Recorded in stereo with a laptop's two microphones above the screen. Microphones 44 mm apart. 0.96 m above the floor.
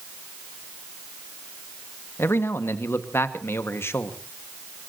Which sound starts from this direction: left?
A man speaking, at 2.2 s.